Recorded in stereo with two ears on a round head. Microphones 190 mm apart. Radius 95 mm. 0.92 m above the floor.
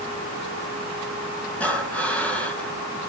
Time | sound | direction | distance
1.6 | breathing | 5° left (ahead or behind) | 2 m